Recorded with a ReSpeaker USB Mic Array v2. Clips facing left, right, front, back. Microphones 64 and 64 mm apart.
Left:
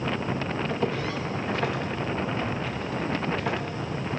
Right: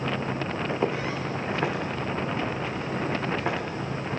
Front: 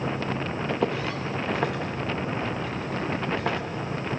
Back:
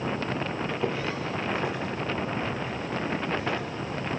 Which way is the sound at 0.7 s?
20° right.